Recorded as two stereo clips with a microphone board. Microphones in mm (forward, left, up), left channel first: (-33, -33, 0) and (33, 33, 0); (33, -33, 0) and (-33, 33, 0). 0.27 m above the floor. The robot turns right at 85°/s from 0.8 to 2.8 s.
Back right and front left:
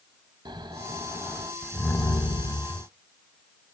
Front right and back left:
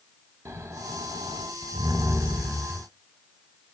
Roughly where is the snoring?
Left.